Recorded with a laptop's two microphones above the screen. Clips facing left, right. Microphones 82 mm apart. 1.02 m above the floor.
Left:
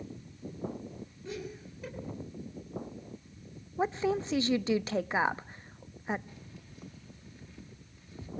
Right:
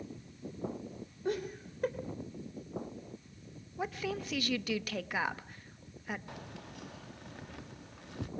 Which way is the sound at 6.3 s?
70° right (ahead or behind).